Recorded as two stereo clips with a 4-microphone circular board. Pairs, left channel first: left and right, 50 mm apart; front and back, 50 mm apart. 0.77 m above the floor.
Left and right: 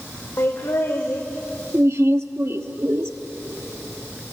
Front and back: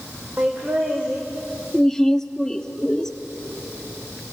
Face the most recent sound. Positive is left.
turn(degrees=-80)